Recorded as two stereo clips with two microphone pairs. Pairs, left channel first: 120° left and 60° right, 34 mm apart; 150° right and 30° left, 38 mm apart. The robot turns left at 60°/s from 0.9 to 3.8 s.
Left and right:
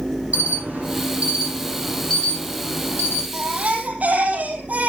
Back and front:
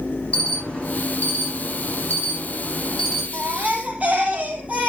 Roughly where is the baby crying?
Ahead.